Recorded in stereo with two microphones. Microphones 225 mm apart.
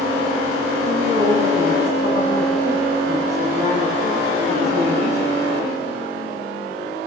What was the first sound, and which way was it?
A woman speaking, 30° right (ahead or behind).